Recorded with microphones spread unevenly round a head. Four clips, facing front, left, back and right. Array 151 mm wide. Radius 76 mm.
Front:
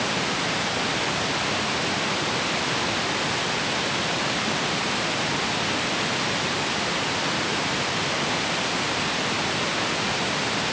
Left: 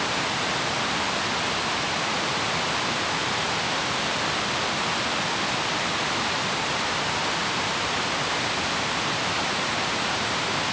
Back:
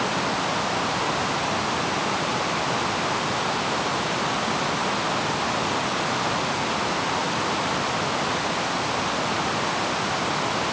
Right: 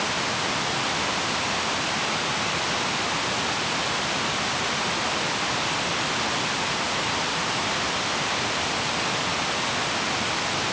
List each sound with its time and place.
Only background noise.